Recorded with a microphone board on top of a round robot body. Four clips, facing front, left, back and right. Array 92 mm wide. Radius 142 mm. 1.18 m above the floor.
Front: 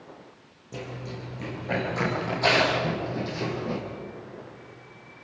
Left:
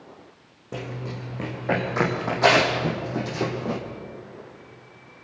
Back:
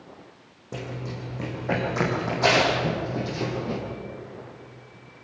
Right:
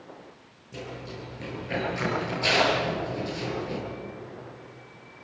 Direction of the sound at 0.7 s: 120° left.